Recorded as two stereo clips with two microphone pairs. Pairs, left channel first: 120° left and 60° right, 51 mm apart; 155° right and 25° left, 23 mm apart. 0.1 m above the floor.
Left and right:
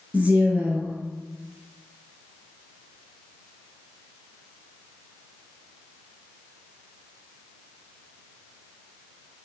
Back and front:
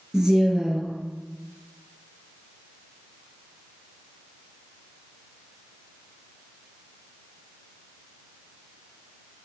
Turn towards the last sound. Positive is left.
turn(degrees=-25)